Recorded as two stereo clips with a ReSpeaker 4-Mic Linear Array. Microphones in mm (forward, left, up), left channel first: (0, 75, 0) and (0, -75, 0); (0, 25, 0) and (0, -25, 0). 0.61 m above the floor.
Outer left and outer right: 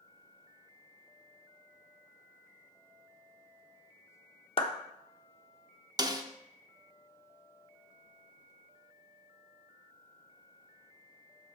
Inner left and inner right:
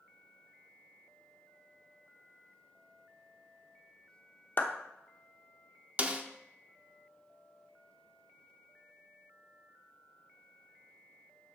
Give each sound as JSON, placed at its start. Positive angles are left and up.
{"t": 4.6, "sound": "a clap", "side_deg": 35, "distance_m": 0.8}
{"t": 6.0, "sound": "a snare drum", "side_deg": -25, "distance_m": 0.6}